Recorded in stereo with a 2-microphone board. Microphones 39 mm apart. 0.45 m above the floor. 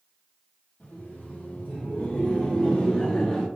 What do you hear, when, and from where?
0.8 s laughter: 60° left (ahead or behind), 1.8 m; by 3.5 s 25° left (ahead or behind), 1.8 m